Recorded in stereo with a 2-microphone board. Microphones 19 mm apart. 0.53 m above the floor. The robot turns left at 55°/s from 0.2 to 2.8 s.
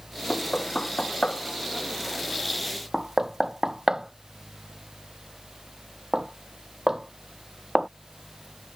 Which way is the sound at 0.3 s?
70° left (ahead or behind).